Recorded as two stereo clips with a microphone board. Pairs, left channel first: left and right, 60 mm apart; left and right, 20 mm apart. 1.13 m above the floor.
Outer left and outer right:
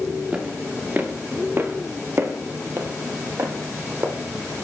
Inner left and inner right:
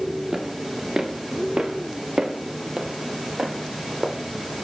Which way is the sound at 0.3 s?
20° right (ahead or behind).